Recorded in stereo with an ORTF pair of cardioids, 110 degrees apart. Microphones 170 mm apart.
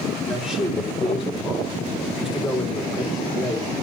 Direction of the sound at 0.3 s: 5° right.